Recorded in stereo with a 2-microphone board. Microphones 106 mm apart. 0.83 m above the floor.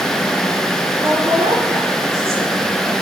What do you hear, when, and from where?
1.0 s a woman speaking: 30° right (ahead or behind), 9.5 m